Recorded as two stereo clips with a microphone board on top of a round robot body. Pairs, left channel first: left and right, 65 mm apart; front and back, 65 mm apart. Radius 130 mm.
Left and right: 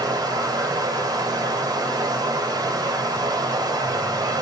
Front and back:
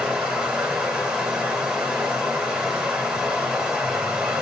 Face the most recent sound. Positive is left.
turn(degrees=-100)